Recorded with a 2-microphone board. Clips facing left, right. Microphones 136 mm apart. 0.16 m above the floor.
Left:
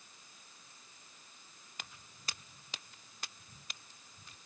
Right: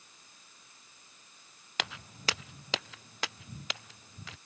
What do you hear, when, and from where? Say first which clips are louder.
1.8 s footsteps: right 15 dB; 75° right (ahead or behind); by 4.4 s 80° right